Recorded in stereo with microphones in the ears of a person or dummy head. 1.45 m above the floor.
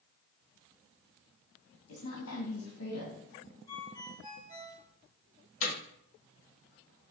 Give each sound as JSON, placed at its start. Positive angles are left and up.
{"t": 1.9, "sound": "a woman speaking", "side_deg": 70, "distance_m": 3.0}
{"t": 3.7, "sound": "a ringtone", "side_deg": 25, "distance_m": 2.5}
{"t": 5.6, "sound": "hammering", "side_deg": 45, "distance_m": 2.0}